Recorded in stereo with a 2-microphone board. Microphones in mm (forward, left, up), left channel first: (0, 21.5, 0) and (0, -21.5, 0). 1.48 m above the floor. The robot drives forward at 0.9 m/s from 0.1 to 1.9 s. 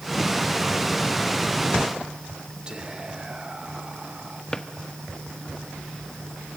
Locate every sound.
2.7 s whispering: 20° right (ahead or behind), 2 m
4.5 s a drawer: 15° left (ahead or behind), 1.1 m